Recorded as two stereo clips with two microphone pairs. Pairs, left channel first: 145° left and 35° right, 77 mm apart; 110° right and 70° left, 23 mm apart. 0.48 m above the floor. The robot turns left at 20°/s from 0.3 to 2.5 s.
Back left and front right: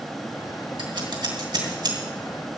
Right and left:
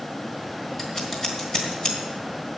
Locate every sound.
0.8 s scissors: 35° right, 3 m; by 2.0 s 60° right, 3 m